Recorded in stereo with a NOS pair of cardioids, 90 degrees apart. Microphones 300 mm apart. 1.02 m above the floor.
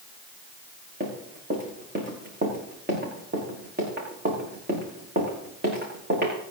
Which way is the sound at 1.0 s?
35° right.